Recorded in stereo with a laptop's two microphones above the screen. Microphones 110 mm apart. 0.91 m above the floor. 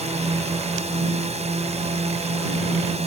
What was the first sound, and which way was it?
A drone, 80° right.